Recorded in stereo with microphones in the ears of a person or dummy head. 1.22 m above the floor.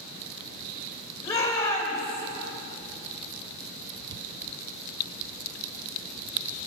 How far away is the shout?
About 4.5 m.